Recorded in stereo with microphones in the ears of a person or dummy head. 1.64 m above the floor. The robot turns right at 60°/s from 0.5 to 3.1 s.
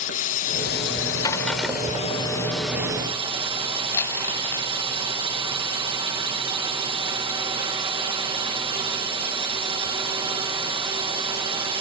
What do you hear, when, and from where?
0.0 s a drone: 50° left; by 11.8 s 155° right
1.2 s breaking glass: 160° left; by 2.1 s 150° right
3.9 s crumpling: 15° left (ahead or behind)